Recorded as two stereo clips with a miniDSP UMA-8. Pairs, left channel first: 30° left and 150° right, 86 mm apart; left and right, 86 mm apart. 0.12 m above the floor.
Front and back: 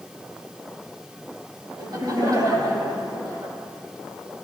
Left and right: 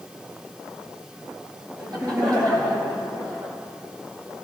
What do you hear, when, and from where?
1.8 s laughter: 115° right, 4.5 m